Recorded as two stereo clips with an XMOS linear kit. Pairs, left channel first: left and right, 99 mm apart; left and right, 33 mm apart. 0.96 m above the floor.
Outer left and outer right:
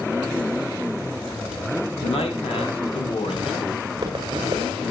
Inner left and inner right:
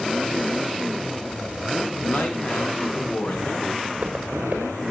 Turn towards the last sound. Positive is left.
turn(degrees=-40)  # may be behind; listen again after turning